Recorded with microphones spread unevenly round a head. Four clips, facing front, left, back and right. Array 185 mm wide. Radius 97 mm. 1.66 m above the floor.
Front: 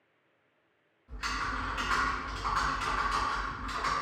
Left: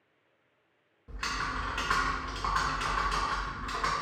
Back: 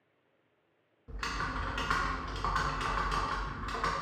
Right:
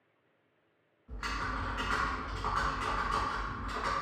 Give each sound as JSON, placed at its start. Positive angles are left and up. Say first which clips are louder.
{"t": 1.1, "sound": "typing on a keyboard", "louder": "left 2 dB, front 2 dB", "azimuth_deg": 135, "distance_m": 0.5}